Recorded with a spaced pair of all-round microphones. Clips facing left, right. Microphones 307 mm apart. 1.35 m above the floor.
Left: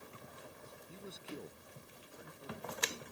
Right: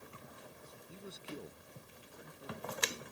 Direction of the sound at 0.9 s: Centre (ahead or behind).